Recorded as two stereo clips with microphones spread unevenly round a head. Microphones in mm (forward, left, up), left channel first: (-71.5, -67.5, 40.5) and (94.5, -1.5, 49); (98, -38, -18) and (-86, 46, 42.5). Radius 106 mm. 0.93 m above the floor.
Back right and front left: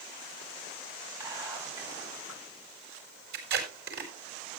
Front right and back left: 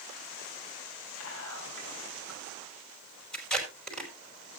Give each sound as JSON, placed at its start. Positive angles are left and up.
{"t": 1.2, "sound": "whispering", "azimuth_deg": -50, "distance_m": 8.5}
{"t": 3.3, "sound": "tape being pulled", "azimuth_deg": 60, "distance_m": 5.0}